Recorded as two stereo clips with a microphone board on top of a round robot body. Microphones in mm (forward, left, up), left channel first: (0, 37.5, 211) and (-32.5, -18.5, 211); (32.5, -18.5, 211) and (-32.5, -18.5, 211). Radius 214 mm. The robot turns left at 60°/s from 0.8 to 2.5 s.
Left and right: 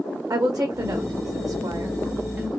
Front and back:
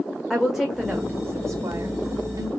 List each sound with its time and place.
0.3 s a woman speaking: 90° right, 0.7 m; by 2.5 s 165° left, 0.7 m